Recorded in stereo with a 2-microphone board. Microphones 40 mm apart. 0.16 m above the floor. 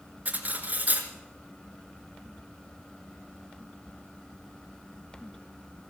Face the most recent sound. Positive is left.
turn(degrees=-40)  # may be behind; listen again after turning